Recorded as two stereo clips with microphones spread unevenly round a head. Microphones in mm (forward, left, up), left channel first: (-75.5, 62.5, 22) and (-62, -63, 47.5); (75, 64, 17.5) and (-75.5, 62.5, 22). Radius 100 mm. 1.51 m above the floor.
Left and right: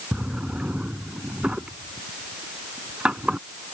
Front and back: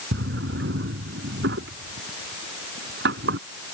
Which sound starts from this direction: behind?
A drawer, at 0.1 s.